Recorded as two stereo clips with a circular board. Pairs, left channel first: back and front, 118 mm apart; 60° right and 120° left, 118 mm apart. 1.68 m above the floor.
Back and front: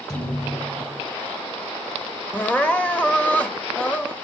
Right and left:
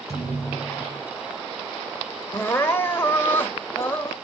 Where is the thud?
125° left, 5.5 m.